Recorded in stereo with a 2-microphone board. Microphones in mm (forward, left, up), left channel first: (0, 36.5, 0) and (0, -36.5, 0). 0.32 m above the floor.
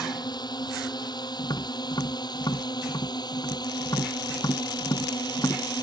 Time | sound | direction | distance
0.0 | a drone | 75° left (ahead or behind) | ?
1.4 | tapping | 70° left (ahead or behind) | ?